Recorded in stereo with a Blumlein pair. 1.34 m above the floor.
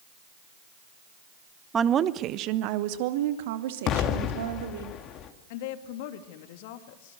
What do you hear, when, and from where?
1.7 s a woman speaking: 15° right, 1.1 m; by 4.9 s 60° right, 3.5 m
3.9 s an explosion: 35° left, 2 m
5.5 s a woman speaking: 50° left, 2.5 m